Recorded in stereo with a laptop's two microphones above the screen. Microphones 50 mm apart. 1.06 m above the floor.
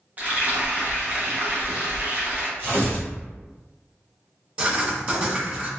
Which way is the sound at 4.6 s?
30° right (ahead or behind).